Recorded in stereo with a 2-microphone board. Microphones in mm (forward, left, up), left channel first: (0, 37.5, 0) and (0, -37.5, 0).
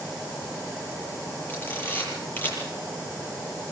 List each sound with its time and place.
1.5 s a camera shutter: 25° left (ahead or behind), 9.5 m